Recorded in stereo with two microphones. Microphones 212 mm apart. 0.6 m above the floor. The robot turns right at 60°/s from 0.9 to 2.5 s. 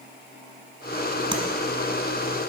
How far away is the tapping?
About 1.4 m.